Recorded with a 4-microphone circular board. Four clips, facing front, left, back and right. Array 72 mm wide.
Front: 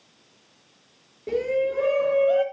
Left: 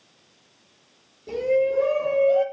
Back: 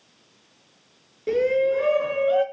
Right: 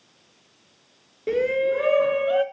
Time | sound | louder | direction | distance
1.3 | a shout | even, back 4 dB | 110° right | 3.5 m